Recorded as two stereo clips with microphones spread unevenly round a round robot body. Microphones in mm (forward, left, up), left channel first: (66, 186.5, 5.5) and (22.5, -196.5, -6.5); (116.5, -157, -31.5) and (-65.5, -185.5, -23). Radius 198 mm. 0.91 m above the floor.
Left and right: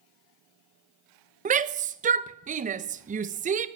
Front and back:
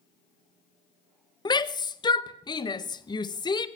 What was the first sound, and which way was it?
A shout, 40° right.